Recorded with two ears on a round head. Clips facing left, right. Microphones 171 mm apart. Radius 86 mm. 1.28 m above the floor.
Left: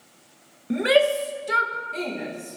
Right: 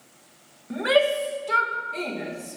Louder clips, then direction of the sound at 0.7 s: Left 2 dB; 35° left (ahead or behind).